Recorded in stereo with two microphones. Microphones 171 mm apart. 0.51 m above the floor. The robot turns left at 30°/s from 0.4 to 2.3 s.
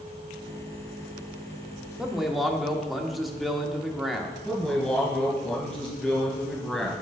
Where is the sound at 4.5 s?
5° left (ahead or behind), 3 m.